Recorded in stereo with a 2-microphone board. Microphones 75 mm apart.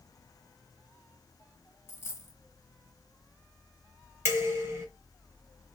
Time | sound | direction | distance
1.9 | a dropped coin | 30° left (ahead or behind) | 0.9 m
4.2 | dishes clattering | 35° right (ahead or behind) | 1.9 m